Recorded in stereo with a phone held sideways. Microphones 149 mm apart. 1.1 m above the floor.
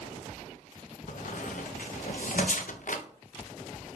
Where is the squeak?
60° left (ahead or behind), 0.6 m.